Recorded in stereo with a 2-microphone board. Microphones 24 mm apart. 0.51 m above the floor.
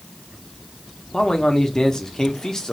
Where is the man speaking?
30° left (ahead or behind), 0.7 m.